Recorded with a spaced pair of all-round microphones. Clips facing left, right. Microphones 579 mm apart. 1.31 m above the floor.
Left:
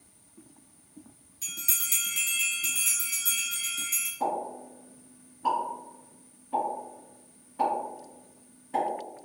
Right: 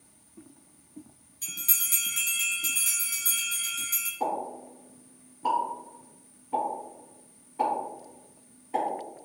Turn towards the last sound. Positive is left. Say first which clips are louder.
# even
turn(degrees=35)  # may be behind; listen again after turning